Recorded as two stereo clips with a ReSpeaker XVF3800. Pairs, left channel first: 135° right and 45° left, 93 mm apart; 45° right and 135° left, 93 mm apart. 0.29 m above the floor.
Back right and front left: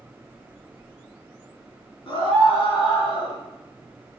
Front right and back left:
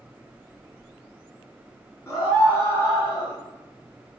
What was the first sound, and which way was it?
A scream, 105° right.